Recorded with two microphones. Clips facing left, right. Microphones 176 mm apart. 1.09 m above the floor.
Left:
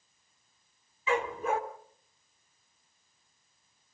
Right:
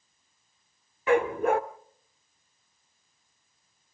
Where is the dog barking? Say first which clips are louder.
Right 7 dB; 60° right (ahead or behind), 1.1 m.